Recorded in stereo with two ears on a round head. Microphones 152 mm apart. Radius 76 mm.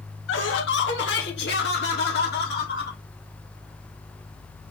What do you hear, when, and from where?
0.3 s laughter: 80° left, 1.4 m; by 3.0 s 60° left (ahead or behind), 2.5 m